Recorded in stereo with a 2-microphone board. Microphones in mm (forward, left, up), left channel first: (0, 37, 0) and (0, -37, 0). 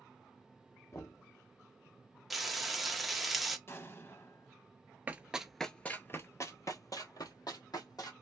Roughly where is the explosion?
Left.